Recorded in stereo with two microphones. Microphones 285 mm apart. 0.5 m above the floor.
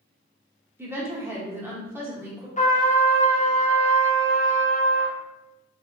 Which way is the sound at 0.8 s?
10° right (ahead or behind).